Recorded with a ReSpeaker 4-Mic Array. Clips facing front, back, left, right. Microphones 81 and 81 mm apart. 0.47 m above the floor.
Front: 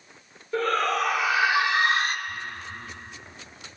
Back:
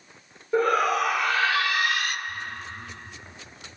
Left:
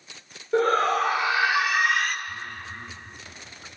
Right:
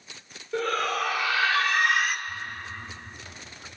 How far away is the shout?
About 1.4 m.